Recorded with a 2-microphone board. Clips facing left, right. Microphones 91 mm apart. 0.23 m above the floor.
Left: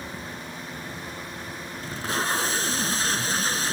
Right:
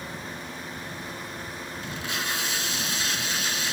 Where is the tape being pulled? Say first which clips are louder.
Left 5 dB; 40° left (ahead or behind).